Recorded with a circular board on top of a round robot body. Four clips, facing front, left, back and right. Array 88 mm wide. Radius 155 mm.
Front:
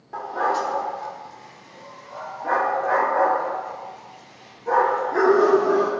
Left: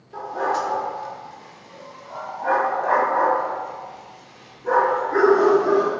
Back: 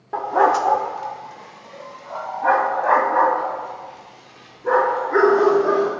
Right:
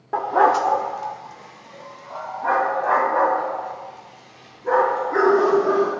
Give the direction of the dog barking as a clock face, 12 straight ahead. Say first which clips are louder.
Right 7 dB, back 7 dB; 4 o'clock.